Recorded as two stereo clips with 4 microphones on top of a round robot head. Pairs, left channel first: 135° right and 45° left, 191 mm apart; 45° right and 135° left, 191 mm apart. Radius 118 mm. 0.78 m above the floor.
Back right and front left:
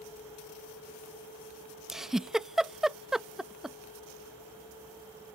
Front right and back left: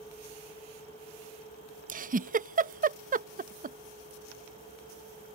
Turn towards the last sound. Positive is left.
turn(degrees=130)